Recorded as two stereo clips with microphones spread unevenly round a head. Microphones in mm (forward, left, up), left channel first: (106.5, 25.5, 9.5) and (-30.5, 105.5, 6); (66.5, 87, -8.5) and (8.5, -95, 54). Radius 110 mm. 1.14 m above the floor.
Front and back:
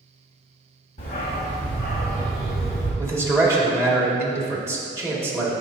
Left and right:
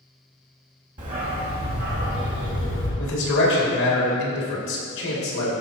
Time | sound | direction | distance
1.0 | a dog barking | 80° right | 1.8 m
3.0 | a man speaking | 80° left | 2.5 m